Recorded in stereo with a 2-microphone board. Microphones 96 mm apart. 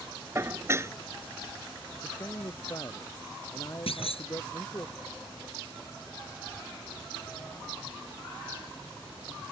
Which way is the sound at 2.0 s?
35° left (ahead or behind).